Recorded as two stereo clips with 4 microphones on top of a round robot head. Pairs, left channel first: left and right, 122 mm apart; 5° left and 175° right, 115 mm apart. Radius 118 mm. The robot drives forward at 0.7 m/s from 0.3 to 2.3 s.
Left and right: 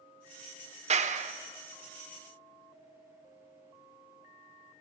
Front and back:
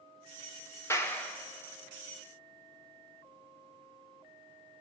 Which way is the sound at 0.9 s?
65° right.